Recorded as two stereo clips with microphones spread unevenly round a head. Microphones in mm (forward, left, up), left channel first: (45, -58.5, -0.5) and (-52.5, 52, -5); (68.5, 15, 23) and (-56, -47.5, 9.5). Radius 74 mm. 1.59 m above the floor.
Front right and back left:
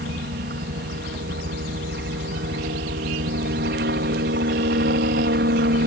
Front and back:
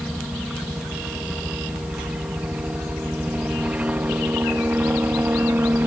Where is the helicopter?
120° left; by 5.9 s 130° left.